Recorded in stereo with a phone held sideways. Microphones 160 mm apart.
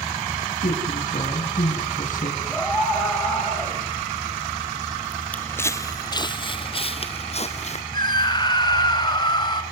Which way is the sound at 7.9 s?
30° left (ahead or behind).